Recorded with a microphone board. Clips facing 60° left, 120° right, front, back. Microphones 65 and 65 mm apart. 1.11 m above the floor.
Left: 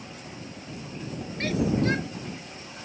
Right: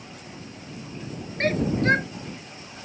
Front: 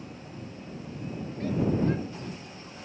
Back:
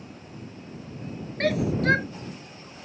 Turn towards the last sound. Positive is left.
turn(degrees=-165)